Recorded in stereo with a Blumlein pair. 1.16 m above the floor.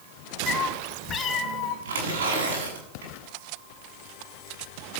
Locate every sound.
0.5 s a cat meowing: 15° left, 2 m; by 1.8 s 35° left, 2.5 m
1.9 s tearing paper: 65° right, 9 m